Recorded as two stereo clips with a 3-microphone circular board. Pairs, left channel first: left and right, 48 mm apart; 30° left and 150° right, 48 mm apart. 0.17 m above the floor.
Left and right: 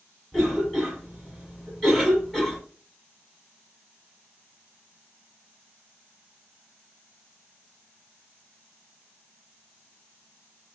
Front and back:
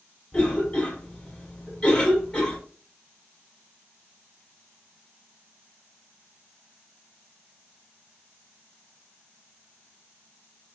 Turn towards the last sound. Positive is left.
turn(degrees=30)